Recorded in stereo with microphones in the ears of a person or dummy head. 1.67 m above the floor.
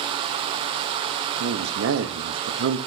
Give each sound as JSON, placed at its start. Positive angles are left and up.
{"t": 1.4, "sound": "a man speaking", "side_deg": -75, "distance_m": 0.8}